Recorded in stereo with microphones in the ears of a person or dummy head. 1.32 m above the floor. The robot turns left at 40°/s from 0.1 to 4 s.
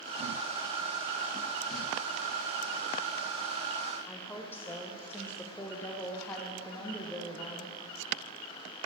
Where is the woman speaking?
15° left (ahead or behind), 0.5 m.